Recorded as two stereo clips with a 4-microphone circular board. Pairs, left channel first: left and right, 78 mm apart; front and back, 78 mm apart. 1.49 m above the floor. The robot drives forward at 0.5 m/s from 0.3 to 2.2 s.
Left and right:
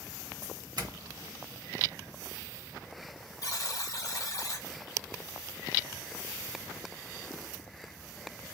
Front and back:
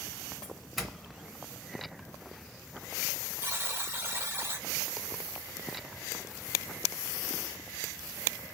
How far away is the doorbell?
About 0.8 m.